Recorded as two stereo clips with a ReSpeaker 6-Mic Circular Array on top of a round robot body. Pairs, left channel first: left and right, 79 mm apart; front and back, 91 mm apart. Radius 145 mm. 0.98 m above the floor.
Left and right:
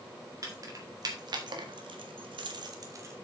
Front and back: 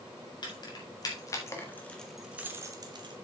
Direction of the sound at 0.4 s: 40° right.